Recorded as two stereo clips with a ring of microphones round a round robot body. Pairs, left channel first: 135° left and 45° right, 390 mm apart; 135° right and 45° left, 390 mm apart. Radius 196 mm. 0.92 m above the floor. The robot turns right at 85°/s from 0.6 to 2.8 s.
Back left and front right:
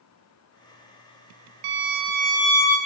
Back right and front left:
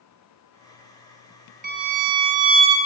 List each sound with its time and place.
1.6 s a violin: 25° right, 0.8 m; by 2.8 s 70° left, 0.8 m